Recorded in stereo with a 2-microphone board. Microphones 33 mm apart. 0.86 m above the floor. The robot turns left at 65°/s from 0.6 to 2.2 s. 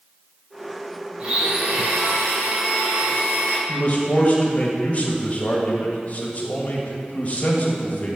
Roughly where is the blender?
Ahead right.